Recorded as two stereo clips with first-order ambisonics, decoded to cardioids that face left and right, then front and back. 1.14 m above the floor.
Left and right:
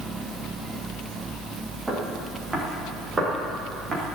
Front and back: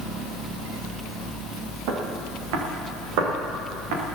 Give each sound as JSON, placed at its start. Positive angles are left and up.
{"t": 1.9, "sound": "footsteps", "azimuth_deg": -165, "distance_m": 5.5}